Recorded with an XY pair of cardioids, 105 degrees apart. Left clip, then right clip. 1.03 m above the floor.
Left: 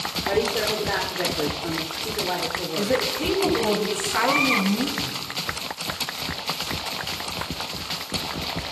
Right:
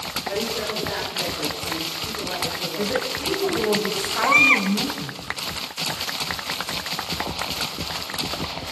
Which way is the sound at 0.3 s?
65° left.